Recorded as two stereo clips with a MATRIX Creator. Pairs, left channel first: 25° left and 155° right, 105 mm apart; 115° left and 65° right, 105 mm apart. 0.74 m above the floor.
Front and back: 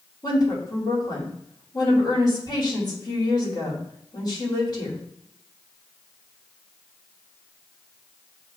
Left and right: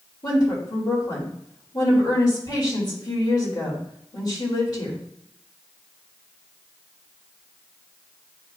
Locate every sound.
0.2 s a woman speaking: 65° left, 2.5 m